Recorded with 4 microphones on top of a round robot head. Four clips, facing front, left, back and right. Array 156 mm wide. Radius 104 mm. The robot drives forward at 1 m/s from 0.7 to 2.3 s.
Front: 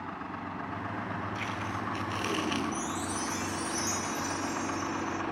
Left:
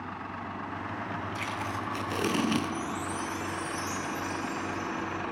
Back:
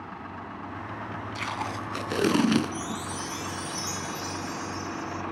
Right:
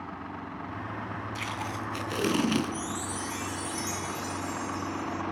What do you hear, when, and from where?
1.4 s tape being pulled: 175° right, 3 m
2.7 s a chime: 110° right, 2.5 m